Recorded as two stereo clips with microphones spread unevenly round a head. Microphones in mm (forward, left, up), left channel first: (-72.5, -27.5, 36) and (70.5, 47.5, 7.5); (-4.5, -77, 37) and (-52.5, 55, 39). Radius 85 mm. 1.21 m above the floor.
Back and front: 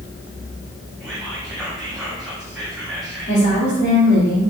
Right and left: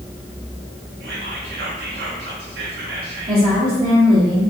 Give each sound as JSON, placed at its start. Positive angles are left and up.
{"t": 1.0, "sound": "whispering", "azimuth_deg": 115, "distance_m": 0.8}
{"t": 3.3, "sound": "a woman speaking", "azimuth_deg": 160, "distance_m": 1.9}